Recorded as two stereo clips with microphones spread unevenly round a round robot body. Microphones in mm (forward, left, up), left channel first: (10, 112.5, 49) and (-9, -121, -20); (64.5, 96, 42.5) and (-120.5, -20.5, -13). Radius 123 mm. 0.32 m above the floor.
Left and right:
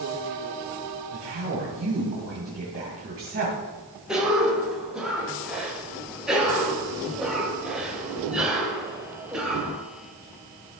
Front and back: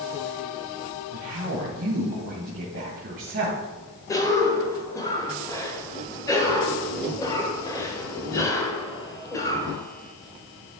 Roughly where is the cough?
Ahead right.